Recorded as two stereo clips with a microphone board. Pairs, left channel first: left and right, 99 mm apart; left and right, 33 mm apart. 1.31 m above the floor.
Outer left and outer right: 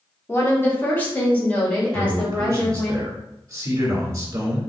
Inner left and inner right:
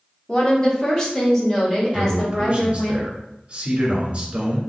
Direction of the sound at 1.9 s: 35° right (ahead or behind).